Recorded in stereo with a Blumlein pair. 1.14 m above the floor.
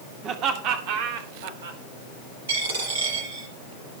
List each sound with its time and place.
0.2 s laughter: 35° right, 3 m; by 1.8 s 60° right, 4 m
2.5 s a dropped coin: 65° right, 7.5 m